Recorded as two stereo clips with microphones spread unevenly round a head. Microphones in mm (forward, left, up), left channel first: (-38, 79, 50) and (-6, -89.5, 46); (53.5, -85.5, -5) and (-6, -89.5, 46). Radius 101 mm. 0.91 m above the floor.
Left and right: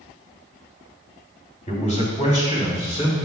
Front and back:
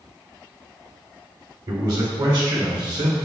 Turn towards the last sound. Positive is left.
turn(degrees=160)